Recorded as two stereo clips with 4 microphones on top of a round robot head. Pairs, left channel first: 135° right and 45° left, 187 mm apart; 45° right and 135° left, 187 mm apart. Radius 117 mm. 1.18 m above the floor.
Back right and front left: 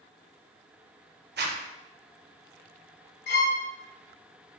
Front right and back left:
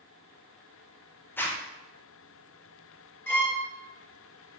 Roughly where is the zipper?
Ahead left.